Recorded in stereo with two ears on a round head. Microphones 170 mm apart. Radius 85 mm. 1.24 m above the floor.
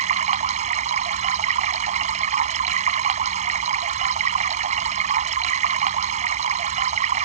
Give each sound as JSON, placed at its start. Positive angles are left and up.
{"t": 0.0, "sound": "running water", "side_deg": -40}